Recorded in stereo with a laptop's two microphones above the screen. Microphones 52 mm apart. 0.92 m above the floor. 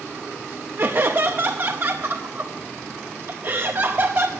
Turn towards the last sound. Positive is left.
turn(degrees=-45)  # may be behind; listen again after turning